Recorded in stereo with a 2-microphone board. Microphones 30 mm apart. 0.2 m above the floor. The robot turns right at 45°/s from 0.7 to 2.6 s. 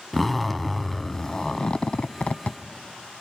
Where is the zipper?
5° left, 0.5 m; by 2.6 s 90° left, 0.5 m.